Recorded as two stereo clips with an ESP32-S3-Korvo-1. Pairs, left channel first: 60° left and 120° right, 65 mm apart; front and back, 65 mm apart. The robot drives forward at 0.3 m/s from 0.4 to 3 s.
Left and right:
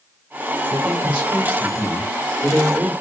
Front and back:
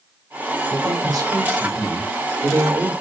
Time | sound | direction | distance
0.7 | a man speaking | 165° left | 5 m